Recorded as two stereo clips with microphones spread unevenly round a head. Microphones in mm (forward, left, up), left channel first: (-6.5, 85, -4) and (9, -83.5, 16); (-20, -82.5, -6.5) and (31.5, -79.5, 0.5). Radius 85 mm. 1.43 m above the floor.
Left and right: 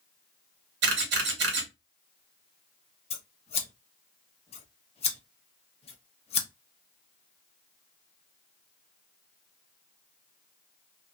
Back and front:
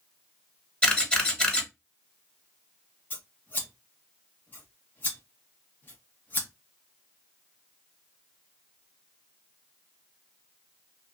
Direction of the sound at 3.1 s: 135° left.